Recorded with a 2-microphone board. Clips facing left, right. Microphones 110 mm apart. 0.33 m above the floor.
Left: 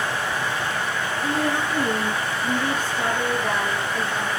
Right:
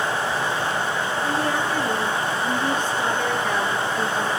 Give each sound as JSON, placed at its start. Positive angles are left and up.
{"t": 1.2, "sound": "a woman speaking", "side_deg": 20, "distance_m": 6.0}